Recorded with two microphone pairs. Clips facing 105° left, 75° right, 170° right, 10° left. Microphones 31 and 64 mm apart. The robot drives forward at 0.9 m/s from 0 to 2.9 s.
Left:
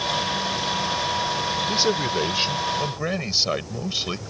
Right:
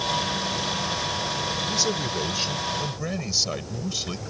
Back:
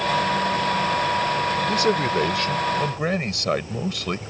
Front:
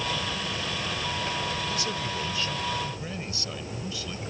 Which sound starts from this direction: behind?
A man speaking, at 1.7 s.